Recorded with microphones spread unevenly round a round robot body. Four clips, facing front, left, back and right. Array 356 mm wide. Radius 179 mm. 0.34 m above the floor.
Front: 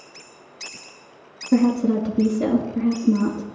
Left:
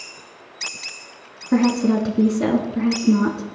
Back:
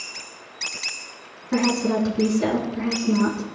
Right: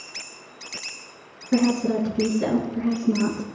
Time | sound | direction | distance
1.5 | a woman speaking | 75° left | 4.5 m